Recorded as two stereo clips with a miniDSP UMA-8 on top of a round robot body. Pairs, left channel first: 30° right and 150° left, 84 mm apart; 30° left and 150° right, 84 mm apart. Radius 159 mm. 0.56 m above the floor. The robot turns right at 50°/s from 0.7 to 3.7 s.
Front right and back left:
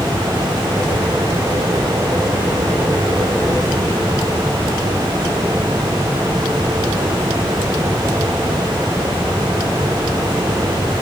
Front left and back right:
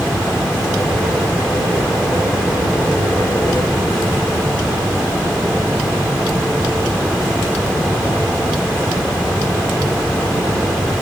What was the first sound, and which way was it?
Only background noise.